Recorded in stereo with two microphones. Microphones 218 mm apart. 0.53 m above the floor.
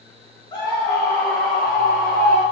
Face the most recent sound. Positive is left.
turn(degrees=5)  # may be behind; listen again after turning